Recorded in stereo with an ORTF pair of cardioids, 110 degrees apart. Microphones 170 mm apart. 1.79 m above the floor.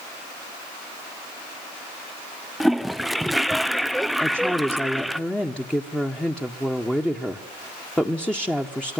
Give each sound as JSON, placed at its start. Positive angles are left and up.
{"t": 2.6, "sound": "a toilet flushing", "azimuth_deg": 0, "distance_m": 0.5}
{"t": 4.2, "sound": "a woman speaking", "azimuth_deg": 5, "distance_m": 1.5}